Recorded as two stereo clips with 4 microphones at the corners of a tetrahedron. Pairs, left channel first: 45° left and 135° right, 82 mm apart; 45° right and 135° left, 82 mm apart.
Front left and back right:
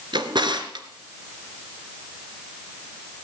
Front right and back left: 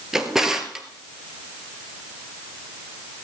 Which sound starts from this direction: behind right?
A drawer, at 0.1 s.